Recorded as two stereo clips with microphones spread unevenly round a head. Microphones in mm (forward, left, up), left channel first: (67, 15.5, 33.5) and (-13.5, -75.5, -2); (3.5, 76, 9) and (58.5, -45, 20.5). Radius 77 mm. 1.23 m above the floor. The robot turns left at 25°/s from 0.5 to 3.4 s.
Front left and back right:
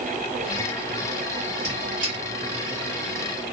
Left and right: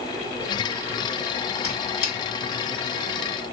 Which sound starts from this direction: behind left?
A squeak, at 1.6 s.